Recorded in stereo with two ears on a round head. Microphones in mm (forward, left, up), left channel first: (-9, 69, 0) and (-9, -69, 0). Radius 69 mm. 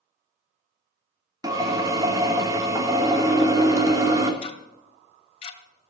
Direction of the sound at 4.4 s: 40° left (ahead or behind).